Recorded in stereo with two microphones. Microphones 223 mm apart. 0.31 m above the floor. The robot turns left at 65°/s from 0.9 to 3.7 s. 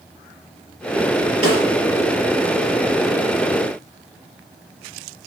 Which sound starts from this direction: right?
A snare drum, at 1.4 s.